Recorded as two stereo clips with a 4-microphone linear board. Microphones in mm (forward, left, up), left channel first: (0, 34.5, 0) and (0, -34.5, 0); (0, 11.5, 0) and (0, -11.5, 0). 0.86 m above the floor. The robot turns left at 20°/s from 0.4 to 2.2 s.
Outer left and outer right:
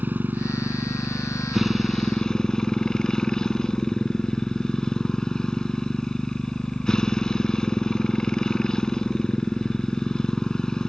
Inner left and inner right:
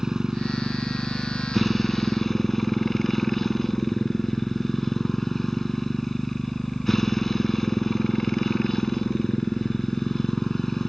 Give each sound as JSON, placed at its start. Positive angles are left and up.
{"t": 0.0, "sound": "a motorcycle", "azimuth_deg": -155}